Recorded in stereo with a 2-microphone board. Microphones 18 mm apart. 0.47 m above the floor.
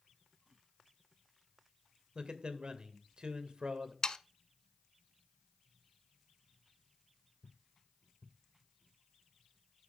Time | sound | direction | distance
2.1 | a man speaking | 45° right (ahead or behind) | 2 m
4.0 | sawing | 40° left (ahead or behind) | 0.7 m